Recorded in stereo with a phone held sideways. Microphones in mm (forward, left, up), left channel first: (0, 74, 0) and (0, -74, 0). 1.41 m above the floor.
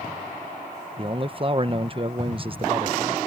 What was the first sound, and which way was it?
A man speaking, 35° right (ahead or behind).